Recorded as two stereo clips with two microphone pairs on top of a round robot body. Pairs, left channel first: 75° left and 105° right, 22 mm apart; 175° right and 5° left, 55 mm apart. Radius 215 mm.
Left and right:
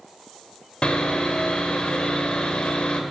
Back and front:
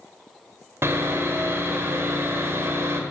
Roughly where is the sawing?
Ahead left.